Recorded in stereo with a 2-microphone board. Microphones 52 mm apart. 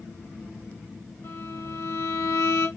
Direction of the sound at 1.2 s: 50° left (ahead or behind).